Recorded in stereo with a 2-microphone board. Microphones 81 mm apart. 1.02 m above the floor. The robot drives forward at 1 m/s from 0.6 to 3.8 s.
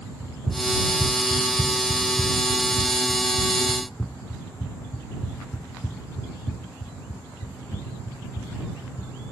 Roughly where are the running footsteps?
Centre.